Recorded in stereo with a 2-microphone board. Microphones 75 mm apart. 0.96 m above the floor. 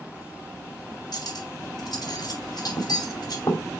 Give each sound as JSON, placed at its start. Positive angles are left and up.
{"t": 1.1, "sound": "cutlery clinking", "side_deg": 60, "distance_m": 4.0}